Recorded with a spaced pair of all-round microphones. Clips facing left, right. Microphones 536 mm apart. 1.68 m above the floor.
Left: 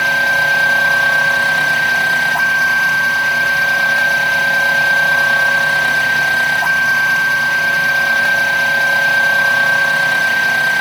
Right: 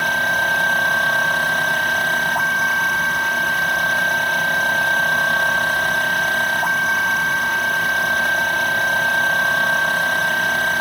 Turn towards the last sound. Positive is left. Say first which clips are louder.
# left 3 dB
turn(degrees=85)